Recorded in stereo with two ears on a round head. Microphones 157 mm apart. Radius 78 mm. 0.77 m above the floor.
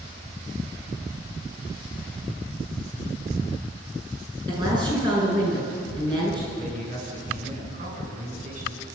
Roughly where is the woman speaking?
Right.